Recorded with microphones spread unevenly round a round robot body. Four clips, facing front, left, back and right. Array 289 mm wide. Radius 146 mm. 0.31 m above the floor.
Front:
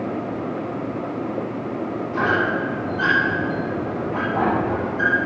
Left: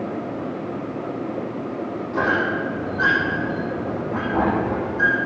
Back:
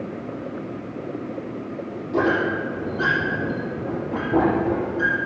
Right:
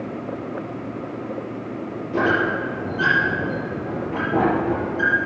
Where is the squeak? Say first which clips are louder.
Right 2 dB, back 1 dB; 140° right, 6 m.